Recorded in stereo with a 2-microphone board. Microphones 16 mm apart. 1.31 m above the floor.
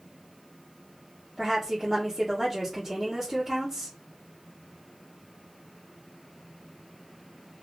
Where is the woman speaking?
25° right (ahead or behind), 1.3 m.